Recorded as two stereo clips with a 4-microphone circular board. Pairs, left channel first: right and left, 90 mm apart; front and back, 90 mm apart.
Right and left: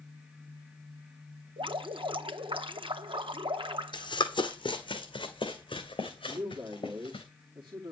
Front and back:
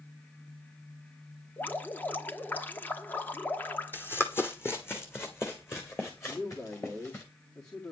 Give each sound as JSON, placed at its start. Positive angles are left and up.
{"t": 1.6, "sound": "dripping", "azimuth_deg": 70, "distance_m": 1.0}
{"t": 3.9, "sound": "running footsteps", "azimuth_deg": -65, "distance_m": 1.8}
{"t": 6.2, "sound": "a man speaking", "azimuth_deg": 50, "distance_m": 2.0}